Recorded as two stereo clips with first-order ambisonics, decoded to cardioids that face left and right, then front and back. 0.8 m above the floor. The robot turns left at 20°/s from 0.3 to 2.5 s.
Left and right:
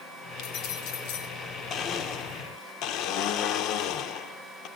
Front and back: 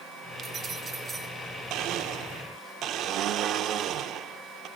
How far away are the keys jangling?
About 1.5 m.